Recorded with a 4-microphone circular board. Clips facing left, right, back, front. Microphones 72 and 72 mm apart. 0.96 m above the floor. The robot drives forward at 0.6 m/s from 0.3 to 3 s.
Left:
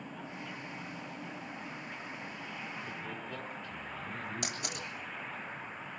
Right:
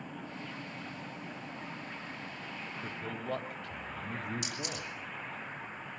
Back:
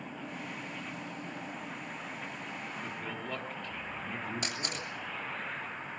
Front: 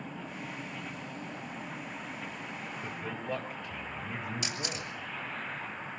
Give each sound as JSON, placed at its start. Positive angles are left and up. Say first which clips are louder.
{"t": 2.8, "sound": "a man speaking", "louder": "right 3 dB, front 4 dB", "azimuth_deg": -75, "distance_m": 3.0}
{"t": 4.4, "sound": "a camera shutter", "louder": "even, even", "azimuth_deg": 130, "distance_m": 7.5}